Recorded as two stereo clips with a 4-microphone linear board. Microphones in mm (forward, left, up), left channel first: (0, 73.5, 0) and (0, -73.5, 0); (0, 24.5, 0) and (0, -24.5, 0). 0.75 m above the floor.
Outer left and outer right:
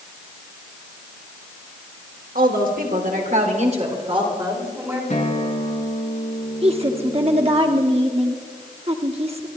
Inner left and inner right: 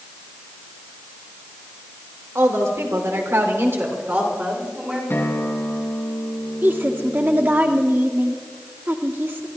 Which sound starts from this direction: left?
A guitar, at 5.1 s.